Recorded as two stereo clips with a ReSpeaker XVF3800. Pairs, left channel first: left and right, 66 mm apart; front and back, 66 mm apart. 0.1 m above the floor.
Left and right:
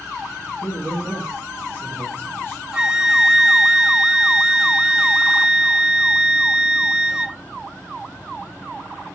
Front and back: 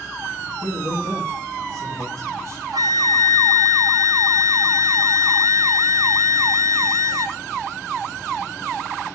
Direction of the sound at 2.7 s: 170° right.